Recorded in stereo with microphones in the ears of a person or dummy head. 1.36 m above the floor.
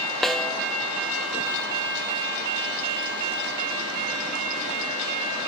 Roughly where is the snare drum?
Centre.